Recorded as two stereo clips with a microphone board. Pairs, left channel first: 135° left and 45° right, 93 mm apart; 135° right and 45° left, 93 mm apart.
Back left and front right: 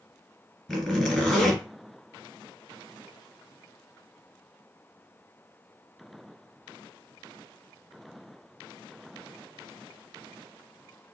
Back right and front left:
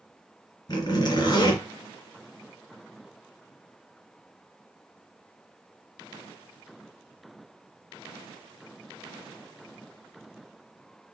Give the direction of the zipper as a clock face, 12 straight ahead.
5 o'clock.